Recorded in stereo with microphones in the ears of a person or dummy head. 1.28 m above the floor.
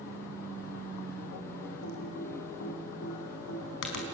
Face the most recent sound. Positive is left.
turn(degrees=65)  # may be behind; listen again after turning